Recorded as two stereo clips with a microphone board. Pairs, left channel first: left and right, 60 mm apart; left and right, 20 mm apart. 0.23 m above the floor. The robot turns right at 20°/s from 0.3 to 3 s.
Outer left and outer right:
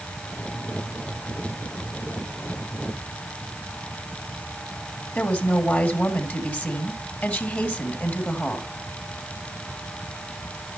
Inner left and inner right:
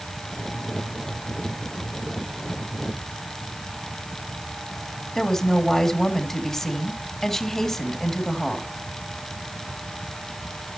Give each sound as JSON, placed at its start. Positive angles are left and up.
{"t": 5.2, "sound": "a woman speaking", "side_deg": 30, "distance_m": 2.0}